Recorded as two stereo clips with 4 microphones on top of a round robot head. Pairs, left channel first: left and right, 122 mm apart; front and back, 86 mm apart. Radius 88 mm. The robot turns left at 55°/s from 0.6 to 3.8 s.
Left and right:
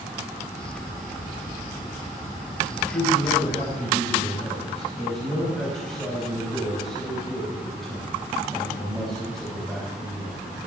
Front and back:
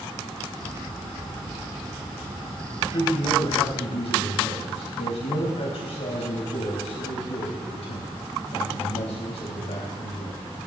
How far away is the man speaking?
About 4.5 m.